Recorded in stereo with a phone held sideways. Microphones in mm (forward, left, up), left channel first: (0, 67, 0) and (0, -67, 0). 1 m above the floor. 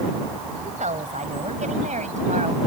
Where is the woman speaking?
75° right (ahead or behind).